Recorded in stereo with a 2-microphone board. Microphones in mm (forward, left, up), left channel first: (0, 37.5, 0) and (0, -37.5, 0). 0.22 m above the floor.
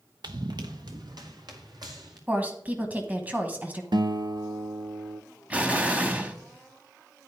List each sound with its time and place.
0.2 s running footsteps: 70° right (ahead or behind), 0.8 m; by 2.2 s 65° right (ahead or behind), 2.5 m
2.3 s a woman speaking: 20° right (ahead or behind), 1.1 m
3.9 s a guitar: 90° right, 0.6 m
5.5 s an explosion: 20° right (ahead or behind), 0.9 m